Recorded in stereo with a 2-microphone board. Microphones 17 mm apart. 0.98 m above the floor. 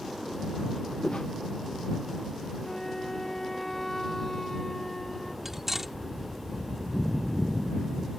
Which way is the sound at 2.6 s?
25° left (ahead or behind).